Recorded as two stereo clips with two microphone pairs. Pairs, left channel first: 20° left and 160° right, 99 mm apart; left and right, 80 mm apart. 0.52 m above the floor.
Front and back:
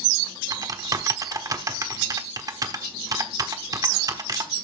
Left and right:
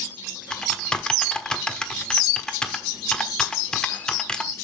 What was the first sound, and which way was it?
Typing on a keyboard, 165° left.